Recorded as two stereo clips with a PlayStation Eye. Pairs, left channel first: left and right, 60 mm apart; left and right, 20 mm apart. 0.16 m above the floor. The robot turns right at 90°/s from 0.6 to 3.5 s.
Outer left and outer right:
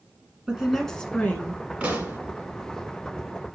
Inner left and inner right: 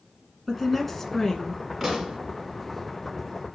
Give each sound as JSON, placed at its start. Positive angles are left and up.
{"t": 0.5, "sound": "a woman speaking", "azimuth_deg": -15, "distance_m": 1.5}
{"t": 1.8, "sound": "a pop", "azimuth_deg": -155, "distance_m": 1.4}